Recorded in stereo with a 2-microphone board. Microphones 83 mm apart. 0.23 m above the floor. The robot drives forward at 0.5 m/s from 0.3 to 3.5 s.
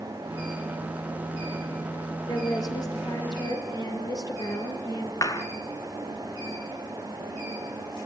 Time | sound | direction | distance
2.3 | a woman speaking | 55° left (ahead or behind) | 5.5 m
5.2 | a clap | 45° left (ahead or behind) | 2.5 m